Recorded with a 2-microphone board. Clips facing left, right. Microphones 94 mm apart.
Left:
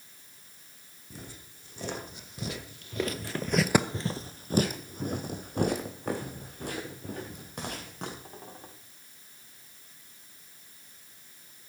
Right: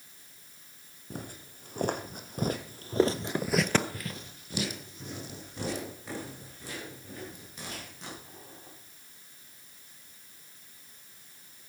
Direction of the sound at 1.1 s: 55° right (ahead or behind).